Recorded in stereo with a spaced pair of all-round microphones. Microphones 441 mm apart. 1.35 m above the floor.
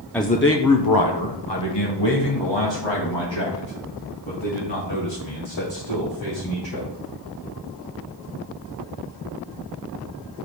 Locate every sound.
0.1 s a man speaking: 5° left (ahead or behind), 0.5 m; by 6.9 s 85° left, 5.5 m